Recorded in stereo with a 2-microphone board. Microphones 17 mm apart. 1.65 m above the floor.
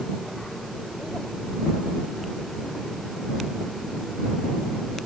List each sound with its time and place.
Only background noise.